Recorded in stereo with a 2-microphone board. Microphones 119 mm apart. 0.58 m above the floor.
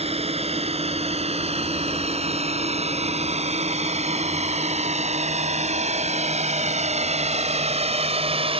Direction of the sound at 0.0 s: 60° right (ahead or behind).